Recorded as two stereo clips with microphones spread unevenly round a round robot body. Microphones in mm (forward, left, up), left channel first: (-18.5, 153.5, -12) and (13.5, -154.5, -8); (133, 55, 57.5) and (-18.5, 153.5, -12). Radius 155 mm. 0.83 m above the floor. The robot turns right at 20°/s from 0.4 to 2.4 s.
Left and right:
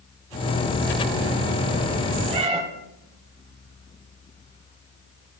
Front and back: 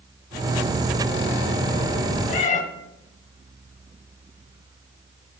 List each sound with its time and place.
2.3 s a cat meowing: 15° right, 1.1 m